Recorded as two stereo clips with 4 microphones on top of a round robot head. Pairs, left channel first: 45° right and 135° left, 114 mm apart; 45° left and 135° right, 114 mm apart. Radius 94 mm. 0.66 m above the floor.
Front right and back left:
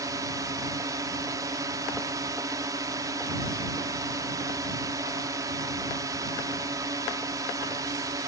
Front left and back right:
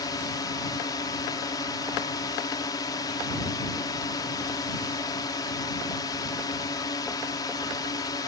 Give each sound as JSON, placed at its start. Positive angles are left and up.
{"t": 0.0, "sound": "a drone", "azimuth_deg": 85}